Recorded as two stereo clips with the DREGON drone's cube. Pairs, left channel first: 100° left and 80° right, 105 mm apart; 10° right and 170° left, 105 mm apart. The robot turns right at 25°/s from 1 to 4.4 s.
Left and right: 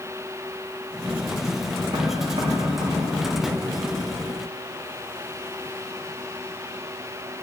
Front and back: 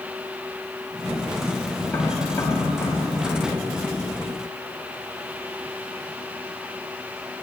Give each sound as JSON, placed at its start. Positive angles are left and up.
{"t": 1.9, "sound": "tapping", "azimuth_deg": -90, "distance_m": 5.5}